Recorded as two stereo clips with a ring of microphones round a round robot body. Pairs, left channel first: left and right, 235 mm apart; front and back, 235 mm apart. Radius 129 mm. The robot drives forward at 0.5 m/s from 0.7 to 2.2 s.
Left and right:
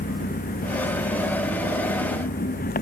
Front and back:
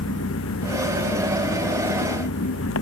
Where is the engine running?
40° left.